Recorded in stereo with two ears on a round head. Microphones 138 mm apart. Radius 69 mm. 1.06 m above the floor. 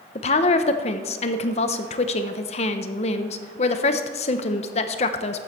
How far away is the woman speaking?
About 0.7 m.